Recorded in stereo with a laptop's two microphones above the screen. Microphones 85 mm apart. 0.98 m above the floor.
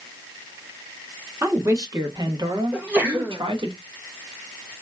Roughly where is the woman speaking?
Right.